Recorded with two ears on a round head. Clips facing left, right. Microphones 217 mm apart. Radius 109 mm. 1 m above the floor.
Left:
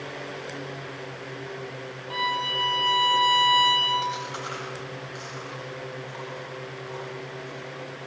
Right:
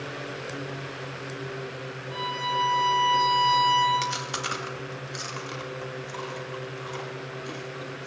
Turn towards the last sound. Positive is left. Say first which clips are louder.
# even
turn(degrees=-80)